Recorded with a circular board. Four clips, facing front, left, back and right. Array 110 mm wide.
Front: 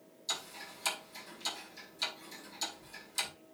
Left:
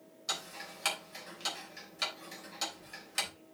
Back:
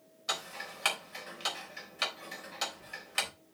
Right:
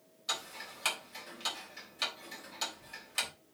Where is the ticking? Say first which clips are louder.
Right 1 dB, back 6 dB; 175° left, 3 m.